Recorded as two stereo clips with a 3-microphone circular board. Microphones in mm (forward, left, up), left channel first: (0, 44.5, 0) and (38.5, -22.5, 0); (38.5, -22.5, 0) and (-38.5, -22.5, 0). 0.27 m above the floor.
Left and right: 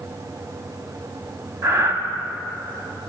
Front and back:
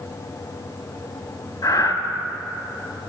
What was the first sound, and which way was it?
Breathing, 20° right.